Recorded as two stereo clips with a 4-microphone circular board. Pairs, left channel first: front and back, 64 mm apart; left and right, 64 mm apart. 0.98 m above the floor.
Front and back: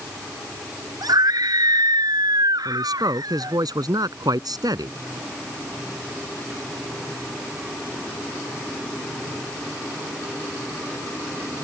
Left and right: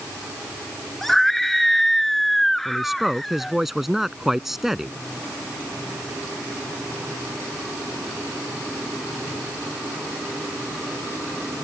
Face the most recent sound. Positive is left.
turn(degrees=-175)